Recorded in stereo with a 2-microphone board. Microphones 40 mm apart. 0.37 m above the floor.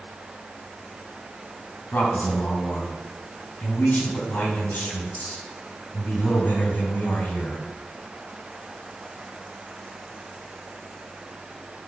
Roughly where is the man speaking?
Left.